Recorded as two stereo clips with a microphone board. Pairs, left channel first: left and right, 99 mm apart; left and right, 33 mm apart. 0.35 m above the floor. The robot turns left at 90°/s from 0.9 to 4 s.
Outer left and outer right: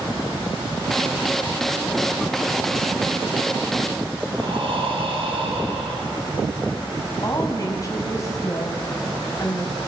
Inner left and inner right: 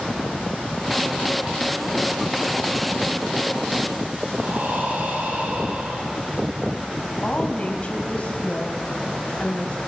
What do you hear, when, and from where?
4.3 s breathing: 60° right (ahead or behind), 6.5 m
7.2 s a woman speaking: 35° left (ahead or behind), 2.5 m